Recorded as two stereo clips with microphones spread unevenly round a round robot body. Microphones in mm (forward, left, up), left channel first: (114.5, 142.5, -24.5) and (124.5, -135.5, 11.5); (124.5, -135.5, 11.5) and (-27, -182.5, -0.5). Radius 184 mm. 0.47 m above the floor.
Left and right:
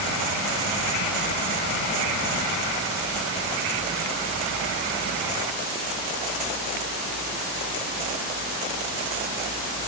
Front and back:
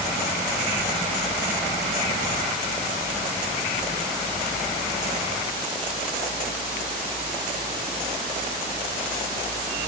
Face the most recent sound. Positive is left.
No sound to turn to.